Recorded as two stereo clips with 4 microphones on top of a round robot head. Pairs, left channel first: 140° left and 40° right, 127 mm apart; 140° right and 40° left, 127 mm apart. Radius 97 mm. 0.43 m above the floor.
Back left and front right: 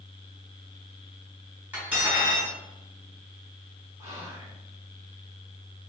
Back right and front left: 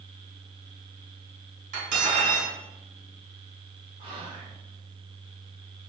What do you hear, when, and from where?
1.7 s cutlery clinking: 40° left, 1.8 m
4.0 s whispering: 20° left, 1.5 m